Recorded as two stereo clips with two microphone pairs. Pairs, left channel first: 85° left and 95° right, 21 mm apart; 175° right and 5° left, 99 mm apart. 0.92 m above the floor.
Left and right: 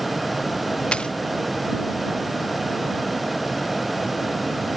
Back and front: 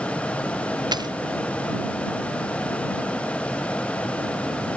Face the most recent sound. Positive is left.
turn(degrees=50)